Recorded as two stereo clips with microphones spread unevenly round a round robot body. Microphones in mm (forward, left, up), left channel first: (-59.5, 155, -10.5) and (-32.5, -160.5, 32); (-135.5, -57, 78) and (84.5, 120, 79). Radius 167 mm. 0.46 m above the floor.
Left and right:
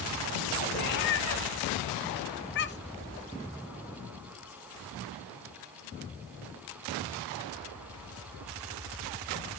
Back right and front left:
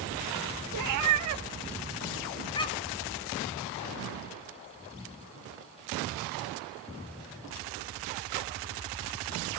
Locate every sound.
0.7 s a cat meowing: 40° left, 0.7 m; by 3.0 s 155° left, 0.9 m